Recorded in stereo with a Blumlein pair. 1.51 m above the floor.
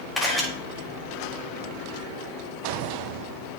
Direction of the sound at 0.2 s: 5° left.